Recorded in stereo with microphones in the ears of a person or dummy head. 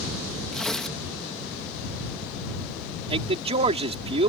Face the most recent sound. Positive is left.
turn(degrees=-35)  # may be behind; listen again after turning